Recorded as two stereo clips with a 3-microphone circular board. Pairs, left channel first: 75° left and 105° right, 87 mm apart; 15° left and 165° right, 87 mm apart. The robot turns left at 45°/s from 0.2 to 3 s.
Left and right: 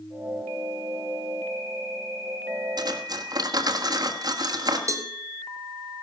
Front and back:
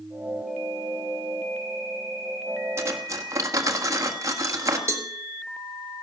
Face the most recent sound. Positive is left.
turn(degrees=-130)